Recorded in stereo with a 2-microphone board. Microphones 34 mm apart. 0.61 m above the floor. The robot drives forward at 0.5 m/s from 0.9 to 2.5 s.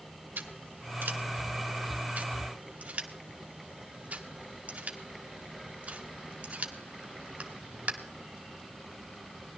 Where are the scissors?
70° right (ahead or behind), 1.2 m; by 7.9 s 45° right (ahead or behind), 1.5 m.